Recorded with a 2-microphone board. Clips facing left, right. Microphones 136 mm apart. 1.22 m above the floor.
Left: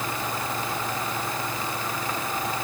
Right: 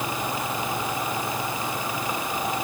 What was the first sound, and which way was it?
Only background noise.